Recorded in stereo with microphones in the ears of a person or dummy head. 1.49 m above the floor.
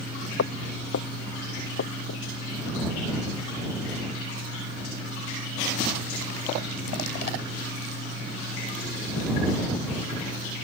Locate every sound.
0.4 s footsteps: 65° left (ahead or behind); by 2.2 s 60° left (ahead or behind)